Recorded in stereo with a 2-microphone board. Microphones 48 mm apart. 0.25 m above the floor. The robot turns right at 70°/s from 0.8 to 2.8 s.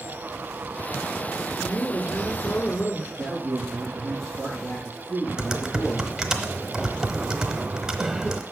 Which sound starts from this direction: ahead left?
A woman speaking, at 1.6 s.